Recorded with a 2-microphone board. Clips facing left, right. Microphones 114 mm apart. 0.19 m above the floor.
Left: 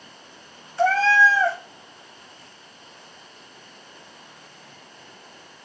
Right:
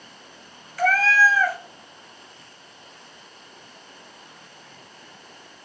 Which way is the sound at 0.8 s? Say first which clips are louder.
Left 2 dB; 30° left (ahead or behind).